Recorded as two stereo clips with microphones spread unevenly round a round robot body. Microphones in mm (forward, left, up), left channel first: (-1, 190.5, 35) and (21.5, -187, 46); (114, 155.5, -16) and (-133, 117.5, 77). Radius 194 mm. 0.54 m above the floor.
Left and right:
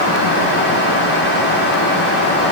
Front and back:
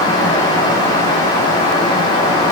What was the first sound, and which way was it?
Only background noise.